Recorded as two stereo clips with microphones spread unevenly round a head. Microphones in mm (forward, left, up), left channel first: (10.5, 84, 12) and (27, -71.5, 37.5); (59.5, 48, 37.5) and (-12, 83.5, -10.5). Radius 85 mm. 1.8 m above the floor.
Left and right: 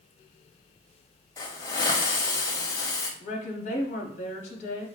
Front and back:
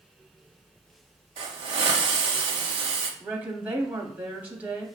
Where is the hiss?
170° left, 0.5 m.